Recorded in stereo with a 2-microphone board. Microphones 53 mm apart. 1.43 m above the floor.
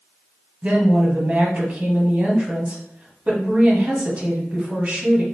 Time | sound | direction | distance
0.6 | a woman speaking | 25° right (ahead or behind) | 1.2 m